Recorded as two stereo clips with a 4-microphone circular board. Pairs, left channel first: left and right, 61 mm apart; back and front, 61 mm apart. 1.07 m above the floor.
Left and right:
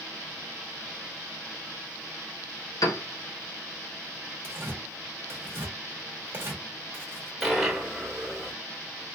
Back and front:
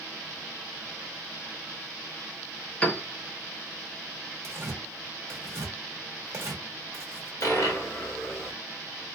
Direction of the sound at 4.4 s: 45° right.